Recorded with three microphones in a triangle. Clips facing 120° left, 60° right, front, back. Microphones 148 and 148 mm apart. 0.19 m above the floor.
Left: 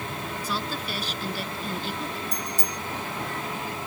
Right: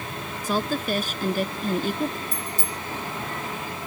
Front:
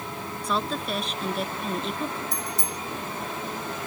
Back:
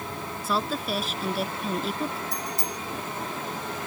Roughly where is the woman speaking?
Right.